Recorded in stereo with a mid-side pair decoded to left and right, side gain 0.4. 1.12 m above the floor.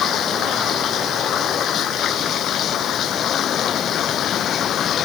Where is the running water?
70° left.